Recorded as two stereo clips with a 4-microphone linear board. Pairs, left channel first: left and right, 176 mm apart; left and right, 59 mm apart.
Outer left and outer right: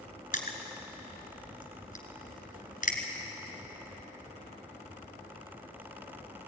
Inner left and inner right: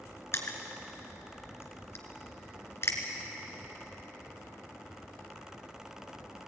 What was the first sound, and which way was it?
Crushing, 50° left (ahead or behind).